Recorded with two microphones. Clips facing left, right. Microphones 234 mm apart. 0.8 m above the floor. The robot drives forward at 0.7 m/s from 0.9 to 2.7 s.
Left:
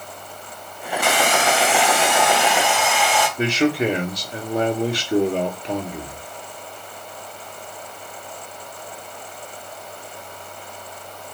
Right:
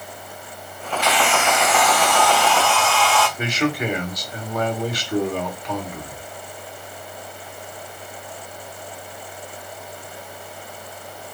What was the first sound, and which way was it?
A hair dryer, 55° left (ahead or behind).